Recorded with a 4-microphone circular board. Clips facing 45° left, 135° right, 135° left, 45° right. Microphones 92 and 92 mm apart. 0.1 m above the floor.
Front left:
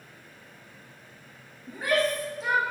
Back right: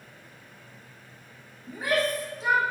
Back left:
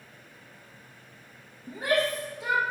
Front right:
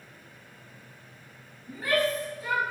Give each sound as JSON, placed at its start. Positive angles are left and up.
{"t": 1.7, "sound": "a shout", "azimuth_deg": 135, "distance_m": 4.0}